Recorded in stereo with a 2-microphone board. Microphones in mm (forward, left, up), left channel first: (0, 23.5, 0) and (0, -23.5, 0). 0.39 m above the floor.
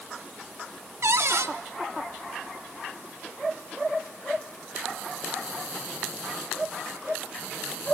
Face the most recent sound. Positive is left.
turn(degrees=-75)  # may be behind; listen again after turning